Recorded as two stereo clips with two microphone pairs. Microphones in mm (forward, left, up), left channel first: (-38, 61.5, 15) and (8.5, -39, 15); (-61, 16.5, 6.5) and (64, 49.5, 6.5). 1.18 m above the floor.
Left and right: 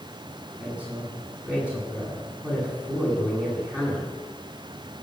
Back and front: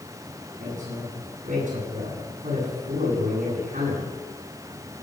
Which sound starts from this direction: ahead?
A woman speaking, at 0.6 s.